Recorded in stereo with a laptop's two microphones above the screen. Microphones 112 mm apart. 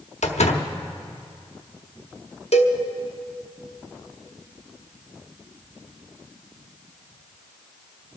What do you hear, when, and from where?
0.2 s a door slam: 85° left, 1.0 m
2.5 s a cowbell: 75° left (ahead or behind), 1.0 m